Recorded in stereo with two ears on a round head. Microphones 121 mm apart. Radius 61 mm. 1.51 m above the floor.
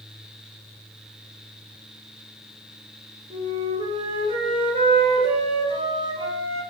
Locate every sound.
3.3 s a flute: 40° right (ahead or behind), 1.3 m